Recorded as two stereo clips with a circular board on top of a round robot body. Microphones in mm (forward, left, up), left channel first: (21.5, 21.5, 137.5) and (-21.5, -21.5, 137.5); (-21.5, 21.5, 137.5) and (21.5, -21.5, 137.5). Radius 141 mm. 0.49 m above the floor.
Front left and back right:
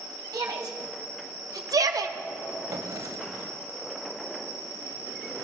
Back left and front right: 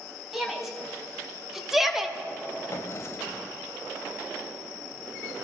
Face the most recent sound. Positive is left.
turn(degrees=-170)